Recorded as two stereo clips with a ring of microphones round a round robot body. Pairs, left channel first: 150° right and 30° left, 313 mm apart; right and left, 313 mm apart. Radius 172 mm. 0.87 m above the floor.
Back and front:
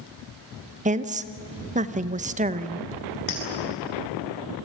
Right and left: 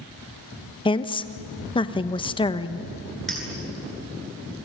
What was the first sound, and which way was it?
A woman speaking, 25° right.